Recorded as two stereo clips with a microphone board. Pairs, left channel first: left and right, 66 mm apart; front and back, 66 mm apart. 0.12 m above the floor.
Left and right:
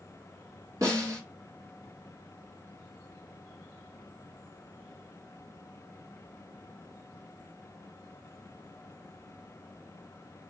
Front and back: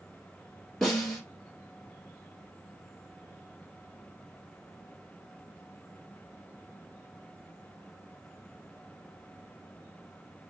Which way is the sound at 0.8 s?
80° right.